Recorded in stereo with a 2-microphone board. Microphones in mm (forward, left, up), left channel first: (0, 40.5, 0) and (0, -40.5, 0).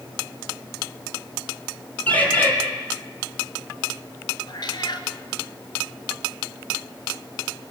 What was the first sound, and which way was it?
A bird, 20° left (ahead or behind).